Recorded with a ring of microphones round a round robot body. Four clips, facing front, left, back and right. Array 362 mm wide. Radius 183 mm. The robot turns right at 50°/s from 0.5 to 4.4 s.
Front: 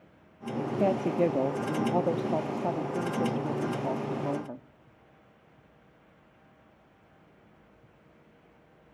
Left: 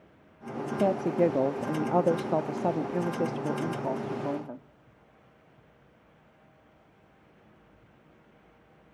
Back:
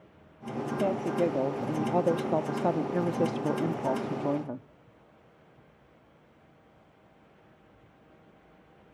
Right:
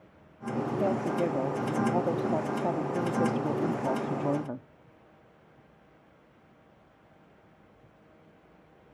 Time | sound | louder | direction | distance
0.8 | a woman speaking | left 5 dB, front 2 dB | 50° left | 0.6 m